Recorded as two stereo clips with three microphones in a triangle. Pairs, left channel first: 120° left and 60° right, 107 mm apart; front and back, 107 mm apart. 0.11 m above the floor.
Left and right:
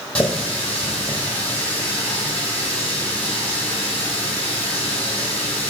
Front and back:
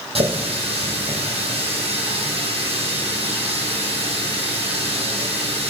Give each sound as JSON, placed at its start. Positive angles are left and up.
{"t": 0.1, "sound": "a running tap", "azimuth_deg": -160, "distance_m": 2.5}